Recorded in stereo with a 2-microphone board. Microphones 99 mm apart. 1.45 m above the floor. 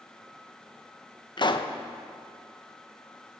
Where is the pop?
50° left (ahead or behind), 0.7 m.